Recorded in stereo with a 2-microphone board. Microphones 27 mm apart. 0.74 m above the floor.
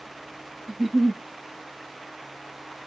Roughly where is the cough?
I don't hear a cough.